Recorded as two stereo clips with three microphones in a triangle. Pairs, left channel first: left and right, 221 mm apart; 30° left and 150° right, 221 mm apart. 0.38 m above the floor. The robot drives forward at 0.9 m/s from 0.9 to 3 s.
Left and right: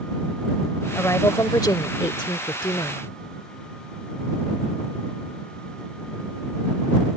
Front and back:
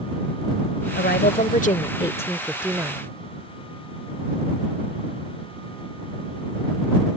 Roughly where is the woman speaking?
Ahead.